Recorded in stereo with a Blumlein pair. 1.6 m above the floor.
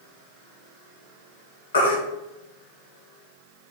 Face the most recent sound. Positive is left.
turn(degrees=65)